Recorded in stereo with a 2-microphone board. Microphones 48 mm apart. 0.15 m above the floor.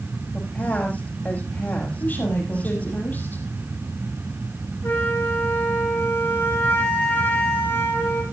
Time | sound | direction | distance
0.3 | a woman speaking | 35° left (ahead or behind) | 6.5 m
2.0 | a woman speaking | 40° left (ahead or behind) | 6 m
4.8 | a flute | 50° left (ahead or behind) | 9.5 m